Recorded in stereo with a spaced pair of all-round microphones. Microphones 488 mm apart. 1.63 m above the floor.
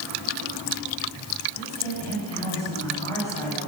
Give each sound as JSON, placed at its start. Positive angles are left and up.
{"t": 1.5, "sound": "a woman speaking", "side_deg": -80, "distance_m": 8.5}